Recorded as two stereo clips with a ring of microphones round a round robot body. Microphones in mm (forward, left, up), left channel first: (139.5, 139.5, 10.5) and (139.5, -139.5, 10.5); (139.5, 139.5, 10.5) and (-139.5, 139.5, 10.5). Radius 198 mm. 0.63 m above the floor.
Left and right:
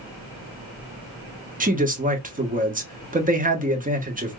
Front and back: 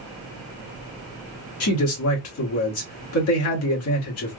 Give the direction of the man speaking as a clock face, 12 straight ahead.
1 o'clock.